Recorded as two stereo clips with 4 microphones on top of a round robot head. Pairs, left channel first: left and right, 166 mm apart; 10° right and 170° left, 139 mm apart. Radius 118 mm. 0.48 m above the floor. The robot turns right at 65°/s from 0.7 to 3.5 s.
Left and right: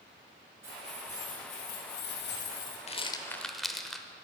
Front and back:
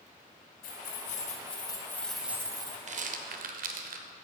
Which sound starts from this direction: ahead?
Keys jangling, at 0.6 s.